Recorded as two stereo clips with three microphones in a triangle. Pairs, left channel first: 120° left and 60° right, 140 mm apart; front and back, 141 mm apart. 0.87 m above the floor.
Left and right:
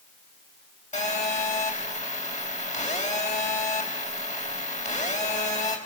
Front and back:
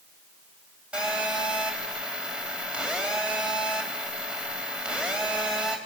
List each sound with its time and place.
0.9 s a phone buzzing: 100° left, 5 m